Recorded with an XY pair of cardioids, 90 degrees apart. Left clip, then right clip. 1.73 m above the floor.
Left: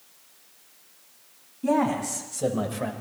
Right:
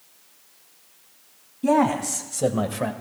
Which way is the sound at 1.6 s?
40° right.